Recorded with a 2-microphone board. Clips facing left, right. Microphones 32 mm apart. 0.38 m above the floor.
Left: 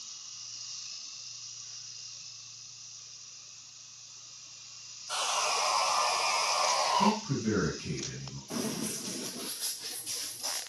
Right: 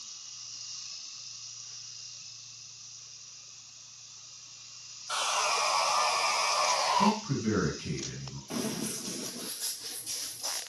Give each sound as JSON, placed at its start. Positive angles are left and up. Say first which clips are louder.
{"t": 5.1, "sound": "sawing", "louder": "right 1 dB", "side_deg": -65, "distance_m": 1.3}
{"t": 7.0, "sound": "a man speaking", "louder": "right 1 dB", "side_deg": -45, "distance_m": 1.8}
{"t": 8.5, "sound": "running footsteps", "louder": "right 1 dB", "side_deg": -30, "distance_m": 0.5}